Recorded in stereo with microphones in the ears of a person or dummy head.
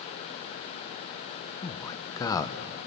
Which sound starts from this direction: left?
A man speaking, at 1.6 s.